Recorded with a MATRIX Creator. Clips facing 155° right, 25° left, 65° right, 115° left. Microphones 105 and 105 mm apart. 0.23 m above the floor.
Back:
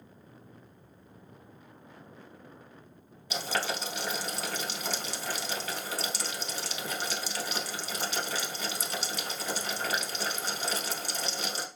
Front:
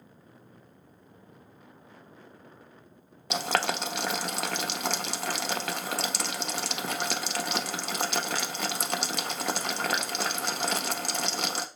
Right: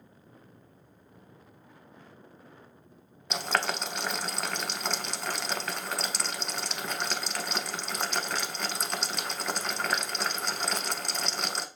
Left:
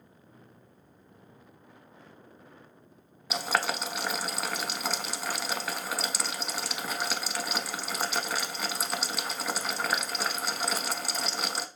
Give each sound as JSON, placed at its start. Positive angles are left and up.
{"t": 3.3, "sound": "boiling", "azimuth_deg": 25, "distance_m": 0.5}